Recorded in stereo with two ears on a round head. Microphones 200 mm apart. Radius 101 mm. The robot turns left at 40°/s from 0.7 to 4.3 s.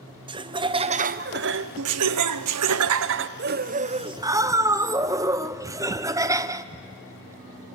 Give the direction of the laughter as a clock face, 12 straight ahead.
1 o'clock.